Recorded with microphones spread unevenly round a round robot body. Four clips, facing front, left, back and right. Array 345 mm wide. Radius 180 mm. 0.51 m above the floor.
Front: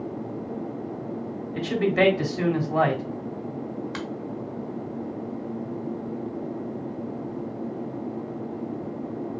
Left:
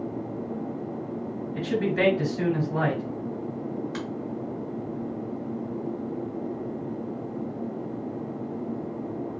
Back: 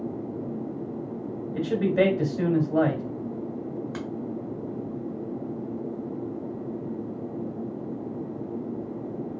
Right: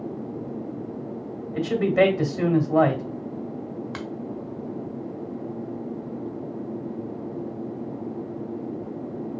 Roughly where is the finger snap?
Right.